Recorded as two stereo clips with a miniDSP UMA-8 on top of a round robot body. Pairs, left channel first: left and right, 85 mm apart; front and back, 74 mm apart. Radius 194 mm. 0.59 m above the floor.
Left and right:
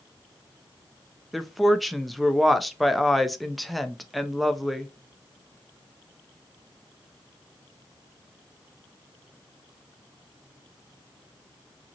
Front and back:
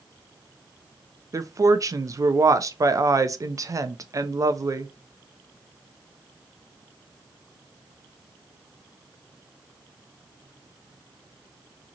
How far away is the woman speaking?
About 0.6 m.